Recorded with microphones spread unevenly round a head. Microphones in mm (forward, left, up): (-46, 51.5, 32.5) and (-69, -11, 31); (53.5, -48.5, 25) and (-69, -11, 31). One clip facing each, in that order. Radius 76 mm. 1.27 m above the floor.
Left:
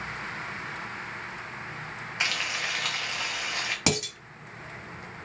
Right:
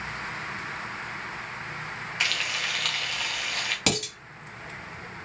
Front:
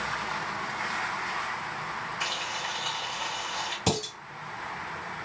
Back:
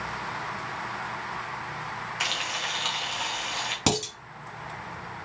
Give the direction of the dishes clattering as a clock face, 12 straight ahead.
7 o'clock.